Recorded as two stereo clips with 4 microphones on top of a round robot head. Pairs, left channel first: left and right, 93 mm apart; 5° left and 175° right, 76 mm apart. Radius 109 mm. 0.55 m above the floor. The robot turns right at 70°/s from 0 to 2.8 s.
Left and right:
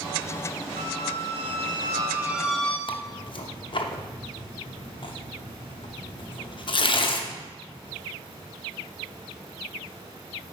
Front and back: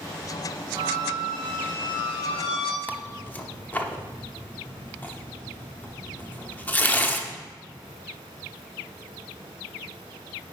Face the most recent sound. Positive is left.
turn(degrees=70)